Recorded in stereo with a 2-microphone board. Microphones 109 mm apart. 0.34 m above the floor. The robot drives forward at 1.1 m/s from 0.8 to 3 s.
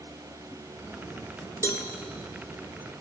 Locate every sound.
1.6 s a cowbell: 25° left (ahead or behind), 1.0 m; by 1.9 s 35° left (ahead or behind), 0.8 m